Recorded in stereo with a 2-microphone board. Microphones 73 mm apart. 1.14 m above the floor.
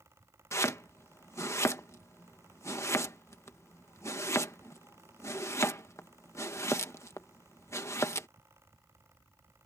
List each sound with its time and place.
0.5 s chopping: 40° left (ahead or behind)